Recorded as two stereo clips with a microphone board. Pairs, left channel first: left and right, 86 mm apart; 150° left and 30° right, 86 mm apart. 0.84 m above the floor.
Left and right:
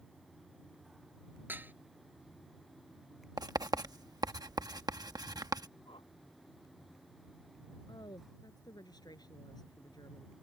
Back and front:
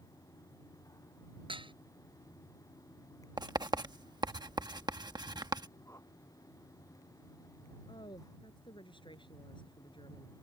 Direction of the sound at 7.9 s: 130° left.